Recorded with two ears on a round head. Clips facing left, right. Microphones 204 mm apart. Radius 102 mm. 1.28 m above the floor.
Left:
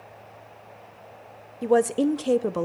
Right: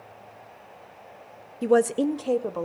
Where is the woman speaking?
15° right (ahead or behind), 0.6 m; by 2.7 s 40° left (ahead or behind), 0.7 m.